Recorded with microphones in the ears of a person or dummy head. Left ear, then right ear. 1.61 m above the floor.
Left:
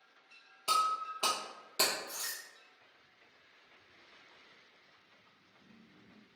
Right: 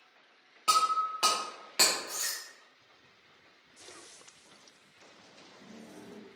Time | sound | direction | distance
0.7 | breaking glass | 10° right (ahead or behind) | 0.7 m